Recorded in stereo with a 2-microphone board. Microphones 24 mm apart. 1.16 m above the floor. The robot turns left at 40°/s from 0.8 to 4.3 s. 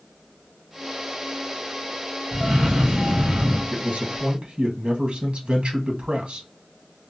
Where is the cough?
5° left, 1.0 m; by 3.6 s 50° right, 1.0 m.